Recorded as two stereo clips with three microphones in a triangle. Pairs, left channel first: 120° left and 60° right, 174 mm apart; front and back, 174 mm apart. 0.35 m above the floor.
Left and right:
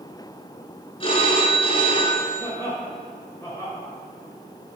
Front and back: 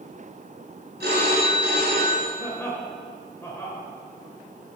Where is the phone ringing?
175° left, 2.5 m.